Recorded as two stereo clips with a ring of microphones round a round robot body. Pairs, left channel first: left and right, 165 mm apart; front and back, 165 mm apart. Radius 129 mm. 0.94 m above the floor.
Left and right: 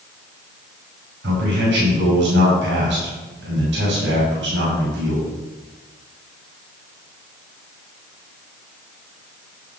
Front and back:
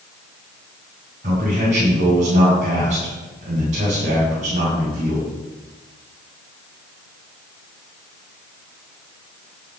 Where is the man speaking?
120° right, 6 m.